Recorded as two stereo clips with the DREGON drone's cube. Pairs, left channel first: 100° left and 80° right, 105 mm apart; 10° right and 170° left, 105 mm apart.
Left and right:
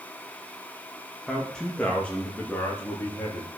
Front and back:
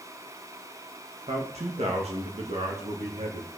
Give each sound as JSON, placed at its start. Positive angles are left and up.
{"t": 1.3, "sound": "a man speaking", "azimuth_deg": -175, "distance_m": 2.0}